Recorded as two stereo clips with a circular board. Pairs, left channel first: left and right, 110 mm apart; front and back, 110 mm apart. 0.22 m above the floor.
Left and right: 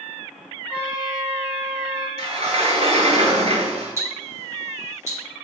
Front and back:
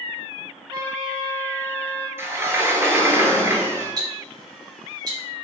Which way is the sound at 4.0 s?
145° right.